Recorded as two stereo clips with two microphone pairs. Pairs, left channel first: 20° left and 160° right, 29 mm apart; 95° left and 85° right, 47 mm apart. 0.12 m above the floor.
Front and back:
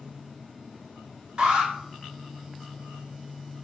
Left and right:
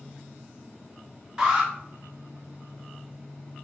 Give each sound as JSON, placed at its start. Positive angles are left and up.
{"t": 1.4, "sound": "an alarm", "azimuth_deg": -155, "distance_m": 1.1}